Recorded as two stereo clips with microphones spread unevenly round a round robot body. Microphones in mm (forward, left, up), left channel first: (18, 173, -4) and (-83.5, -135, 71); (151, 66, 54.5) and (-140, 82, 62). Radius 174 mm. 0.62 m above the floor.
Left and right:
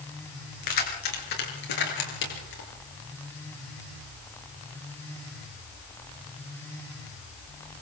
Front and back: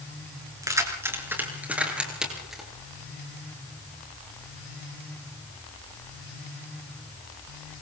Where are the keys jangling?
100° left, 6 m; by 2.7 s 85° left, 8 m.